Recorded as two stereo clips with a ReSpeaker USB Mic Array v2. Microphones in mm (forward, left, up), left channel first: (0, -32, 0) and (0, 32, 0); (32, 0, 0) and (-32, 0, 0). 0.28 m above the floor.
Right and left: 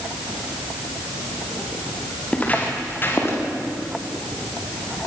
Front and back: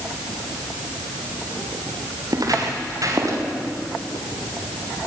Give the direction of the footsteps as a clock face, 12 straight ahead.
5 o'clock.